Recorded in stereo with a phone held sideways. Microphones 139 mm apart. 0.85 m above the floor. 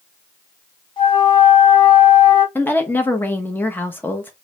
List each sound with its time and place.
1.0 s a flute: 35° left (ahead or behind), 0.9 m
2.5 s a woman speaking: 15° left (ahead or behind), 0.7 m